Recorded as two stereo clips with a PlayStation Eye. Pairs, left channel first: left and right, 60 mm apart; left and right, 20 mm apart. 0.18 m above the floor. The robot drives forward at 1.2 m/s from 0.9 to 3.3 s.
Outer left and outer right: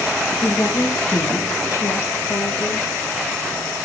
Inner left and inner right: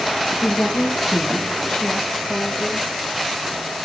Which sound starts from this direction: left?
A woman speaking, at 0.4 s.